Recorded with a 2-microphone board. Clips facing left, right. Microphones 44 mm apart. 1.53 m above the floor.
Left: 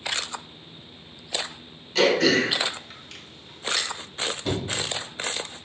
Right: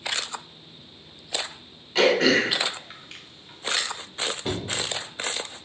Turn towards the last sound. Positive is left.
turn(degrees=-25)  # may be behind; listen again after turning